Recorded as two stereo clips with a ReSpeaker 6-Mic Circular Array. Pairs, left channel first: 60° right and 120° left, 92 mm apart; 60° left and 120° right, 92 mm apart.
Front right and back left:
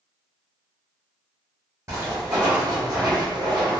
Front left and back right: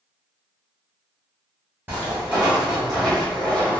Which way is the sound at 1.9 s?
170° left.